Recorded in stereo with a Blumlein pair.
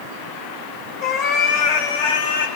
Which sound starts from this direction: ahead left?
A cat meowing, at 1.0 s.